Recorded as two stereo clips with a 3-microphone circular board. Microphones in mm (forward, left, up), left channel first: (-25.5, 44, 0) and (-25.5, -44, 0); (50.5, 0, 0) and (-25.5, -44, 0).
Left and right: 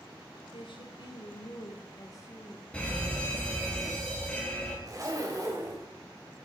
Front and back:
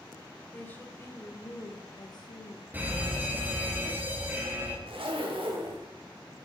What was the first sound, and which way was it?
A woman speaking, 100° left.